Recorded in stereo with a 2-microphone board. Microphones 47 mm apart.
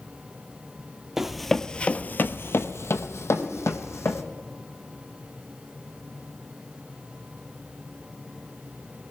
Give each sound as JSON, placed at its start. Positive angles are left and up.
{"t": 1.2, "sound": "running footsteps", "side_deg": -10, "distance_m": 0.7}
{"t": 3.4, "sound": "a whoosh", "side_deg": 40, "distance_m": 6.5}